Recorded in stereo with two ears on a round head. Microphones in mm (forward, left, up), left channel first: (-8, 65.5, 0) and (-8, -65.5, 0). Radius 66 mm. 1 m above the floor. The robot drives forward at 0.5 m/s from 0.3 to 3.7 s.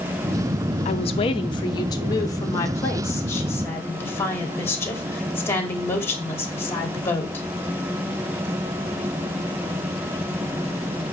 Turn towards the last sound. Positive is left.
turn(degrees=15)  # may be behind; listen again after turning